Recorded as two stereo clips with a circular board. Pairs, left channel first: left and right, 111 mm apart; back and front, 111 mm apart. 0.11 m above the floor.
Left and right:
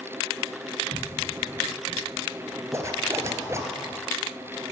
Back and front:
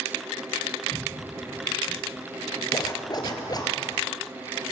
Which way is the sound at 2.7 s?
145° right.